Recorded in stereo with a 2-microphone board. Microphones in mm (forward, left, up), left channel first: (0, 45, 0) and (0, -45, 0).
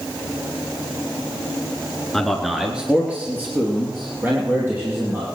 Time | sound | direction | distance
2.1 | a man speaking | 5° left (ahead or behind) | 1.8 m